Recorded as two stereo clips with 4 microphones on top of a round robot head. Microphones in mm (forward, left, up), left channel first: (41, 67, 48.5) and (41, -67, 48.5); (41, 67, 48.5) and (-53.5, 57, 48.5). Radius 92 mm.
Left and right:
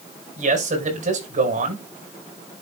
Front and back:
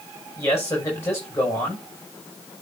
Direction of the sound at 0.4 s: 65° right.